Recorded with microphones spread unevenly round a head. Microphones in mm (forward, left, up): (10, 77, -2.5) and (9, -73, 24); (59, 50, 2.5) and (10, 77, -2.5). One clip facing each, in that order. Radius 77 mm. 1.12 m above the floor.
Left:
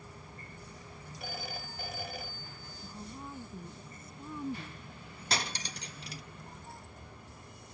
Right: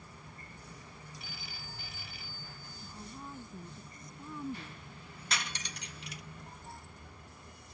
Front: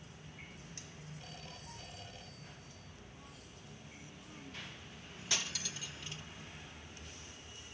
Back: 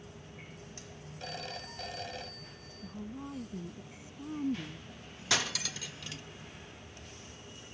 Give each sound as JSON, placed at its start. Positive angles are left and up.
{"t": 1.2, "sound": "a phone ringing", "azimuth_deg": 140}
{"t": 2.8, "sound": "a woman speaking", "azimuth_deg": 175}
{"t": 5.3, "sound": "cutlery clinking", "azimuth_deg": 150}